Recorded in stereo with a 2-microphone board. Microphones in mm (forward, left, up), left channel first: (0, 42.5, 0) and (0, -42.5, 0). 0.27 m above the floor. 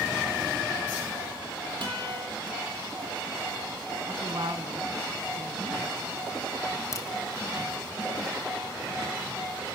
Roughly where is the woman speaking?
Right.